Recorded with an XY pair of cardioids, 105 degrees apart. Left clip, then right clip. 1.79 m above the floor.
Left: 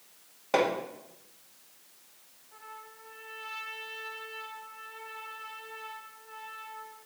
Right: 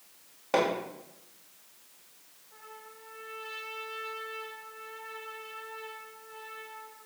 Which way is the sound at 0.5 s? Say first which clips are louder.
Left 1 dB; 5° left.